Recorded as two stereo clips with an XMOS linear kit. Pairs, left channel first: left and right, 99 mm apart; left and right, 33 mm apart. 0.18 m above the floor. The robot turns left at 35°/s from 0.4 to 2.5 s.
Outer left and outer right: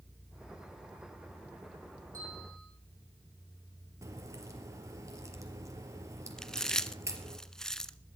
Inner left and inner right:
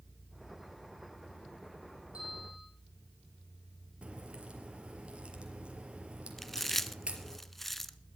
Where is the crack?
30° right (ahead or behind), 4 m.